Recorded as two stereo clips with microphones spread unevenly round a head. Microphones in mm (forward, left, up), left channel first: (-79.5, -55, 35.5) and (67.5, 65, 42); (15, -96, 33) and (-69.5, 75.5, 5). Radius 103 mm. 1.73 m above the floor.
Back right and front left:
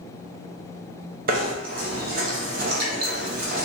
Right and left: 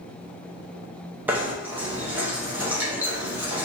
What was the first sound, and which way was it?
Knocking, 30° left.